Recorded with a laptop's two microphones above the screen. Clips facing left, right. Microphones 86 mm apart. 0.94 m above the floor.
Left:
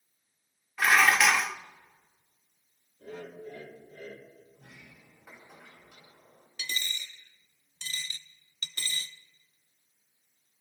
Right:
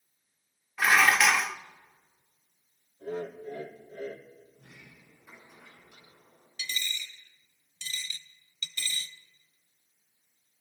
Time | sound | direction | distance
0.8 | dishes clattering | 5° right (ahead or behind) | 0.7 m
3.0 | laughter | 55° right (ahead or behind) | 2.5 m
4.5 | a sliding door | 75° left (ahead or behind) | 5 m
6.6 | a dropped coin | 45° left (ahead or behind) | 0.5 m